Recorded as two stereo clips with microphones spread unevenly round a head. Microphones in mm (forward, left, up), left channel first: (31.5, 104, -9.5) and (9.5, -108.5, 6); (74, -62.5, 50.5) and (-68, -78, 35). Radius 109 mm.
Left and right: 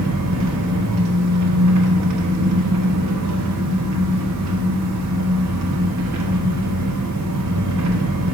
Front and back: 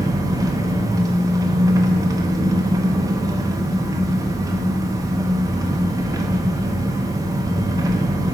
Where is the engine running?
105° right, 1.0 m.